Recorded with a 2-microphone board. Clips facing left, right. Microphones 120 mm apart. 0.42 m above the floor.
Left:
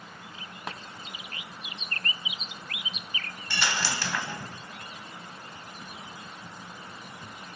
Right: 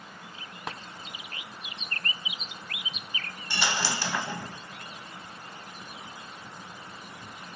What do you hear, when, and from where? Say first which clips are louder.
3.5 s a dropped coin: right 1 dB; 20° right (ahead or behind), 1.5 m